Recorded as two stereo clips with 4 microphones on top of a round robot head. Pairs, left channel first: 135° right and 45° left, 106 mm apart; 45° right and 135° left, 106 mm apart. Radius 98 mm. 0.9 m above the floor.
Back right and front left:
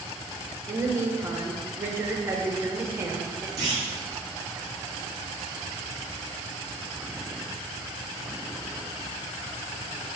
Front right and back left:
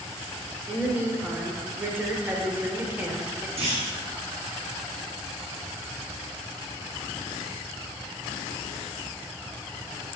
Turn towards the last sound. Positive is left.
turn(degrees=105)